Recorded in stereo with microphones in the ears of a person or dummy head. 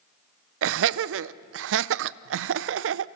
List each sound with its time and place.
0.6 s laughter: 80° right, 0.5 m